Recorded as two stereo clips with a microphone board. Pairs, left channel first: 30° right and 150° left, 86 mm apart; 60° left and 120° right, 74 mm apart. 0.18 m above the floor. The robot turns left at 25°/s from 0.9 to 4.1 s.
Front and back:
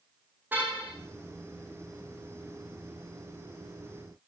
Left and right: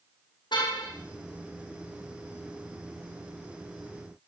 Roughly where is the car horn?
Left.